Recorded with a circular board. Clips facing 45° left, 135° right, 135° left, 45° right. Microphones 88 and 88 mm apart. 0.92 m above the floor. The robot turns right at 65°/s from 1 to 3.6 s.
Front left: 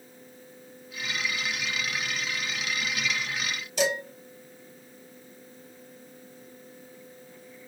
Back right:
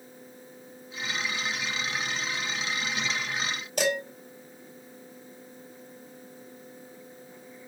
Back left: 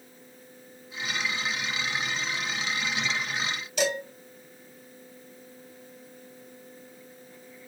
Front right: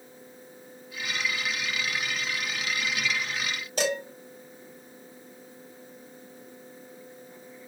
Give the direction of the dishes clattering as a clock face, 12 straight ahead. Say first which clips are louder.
Even, even; 3 o'clock.